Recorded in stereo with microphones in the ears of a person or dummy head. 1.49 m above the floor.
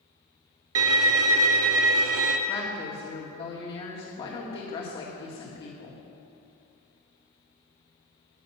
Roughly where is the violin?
Right.